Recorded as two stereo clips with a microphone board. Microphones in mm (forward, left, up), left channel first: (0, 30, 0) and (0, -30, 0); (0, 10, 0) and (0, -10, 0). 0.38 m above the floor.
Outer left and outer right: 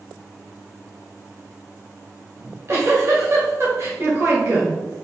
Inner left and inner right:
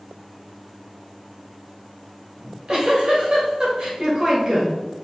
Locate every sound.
2.4 s a giggle: 45° right (ahead or behind), 1.5 m